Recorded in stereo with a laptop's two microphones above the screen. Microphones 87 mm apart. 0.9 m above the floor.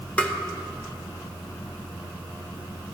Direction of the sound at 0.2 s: 15° left (ahead or behind).